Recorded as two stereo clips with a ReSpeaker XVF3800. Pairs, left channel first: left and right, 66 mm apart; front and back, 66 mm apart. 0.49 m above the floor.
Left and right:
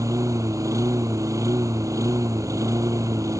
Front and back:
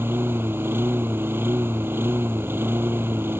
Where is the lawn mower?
125° right.